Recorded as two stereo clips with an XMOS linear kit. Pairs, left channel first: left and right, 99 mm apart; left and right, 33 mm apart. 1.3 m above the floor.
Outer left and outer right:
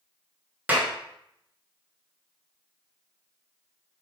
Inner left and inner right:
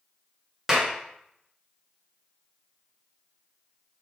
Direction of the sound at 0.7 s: 20° right (ahead or behind).